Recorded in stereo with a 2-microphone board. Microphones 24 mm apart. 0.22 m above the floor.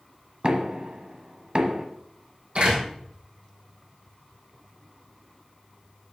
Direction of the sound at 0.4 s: 40° right (ahead or behind).